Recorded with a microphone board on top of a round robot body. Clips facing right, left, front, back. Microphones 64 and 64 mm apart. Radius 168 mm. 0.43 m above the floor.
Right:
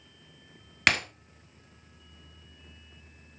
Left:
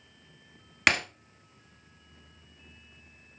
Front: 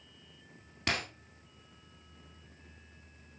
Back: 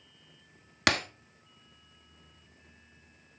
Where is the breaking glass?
Straight behind, 1.0 m.